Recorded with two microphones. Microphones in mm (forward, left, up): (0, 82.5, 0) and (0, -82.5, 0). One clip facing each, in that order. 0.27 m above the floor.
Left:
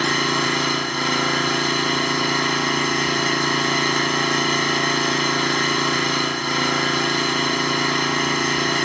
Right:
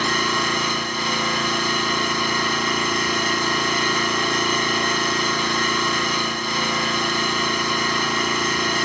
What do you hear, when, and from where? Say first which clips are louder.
0.0 s an engine running: left 2 dB; 65° left (ahead or behind), 0.7 m